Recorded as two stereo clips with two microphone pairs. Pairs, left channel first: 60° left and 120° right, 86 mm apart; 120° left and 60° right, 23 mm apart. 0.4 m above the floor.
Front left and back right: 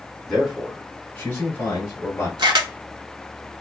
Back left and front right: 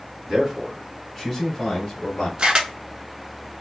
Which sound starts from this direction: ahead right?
A man speaking, at 0.3 s.